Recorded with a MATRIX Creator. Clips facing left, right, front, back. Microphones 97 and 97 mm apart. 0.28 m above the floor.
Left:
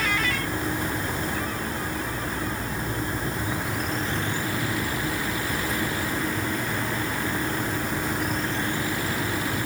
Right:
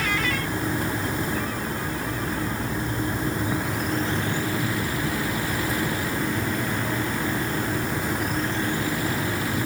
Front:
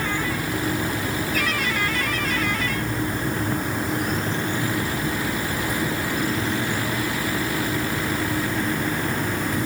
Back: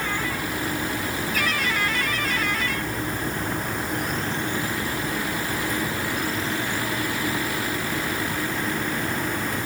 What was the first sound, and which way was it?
Only background noise.